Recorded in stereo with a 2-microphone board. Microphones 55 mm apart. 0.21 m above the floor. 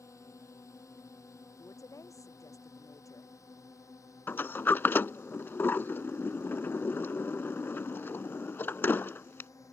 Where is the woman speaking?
85° left.